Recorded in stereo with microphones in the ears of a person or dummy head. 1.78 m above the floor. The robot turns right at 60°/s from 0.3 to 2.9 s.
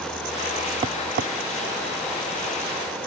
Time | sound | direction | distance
0.8 | tapping | 25° right (ahead or behind) | ?